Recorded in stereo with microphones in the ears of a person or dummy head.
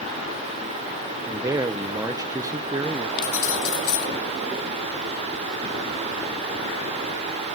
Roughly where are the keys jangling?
Left.